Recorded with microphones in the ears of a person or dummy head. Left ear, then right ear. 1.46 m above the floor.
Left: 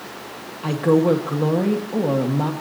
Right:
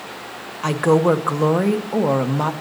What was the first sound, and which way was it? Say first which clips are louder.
A woman speaking: right 1 dB; 45° right (ahead or behind).